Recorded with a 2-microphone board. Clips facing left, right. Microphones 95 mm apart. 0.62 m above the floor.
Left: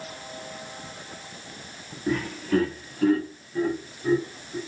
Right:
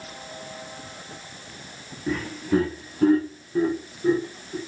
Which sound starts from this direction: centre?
Laughter, at 2.1 s.